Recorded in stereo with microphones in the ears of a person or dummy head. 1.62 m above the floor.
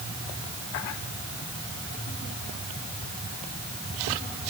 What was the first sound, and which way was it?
Only background noise.